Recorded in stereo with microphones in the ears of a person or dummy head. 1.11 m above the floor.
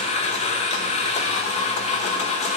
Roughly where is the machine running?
Left.